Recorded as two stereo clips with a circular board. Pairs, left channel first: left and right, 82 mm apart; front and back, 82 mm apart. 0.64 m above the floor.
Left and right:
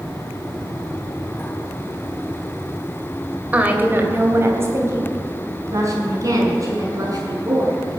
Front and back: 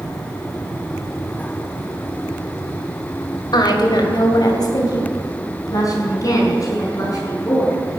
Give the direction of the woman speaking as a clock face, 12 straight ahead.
1 o'clock.